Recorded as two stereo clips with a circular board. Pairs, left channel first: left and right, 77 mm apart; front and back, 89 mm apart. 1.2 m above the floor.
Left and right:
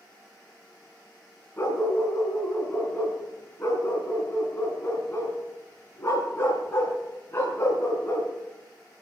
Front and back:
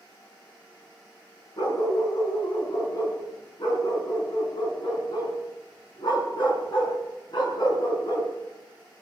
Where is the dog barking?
30° left, 4.5 m.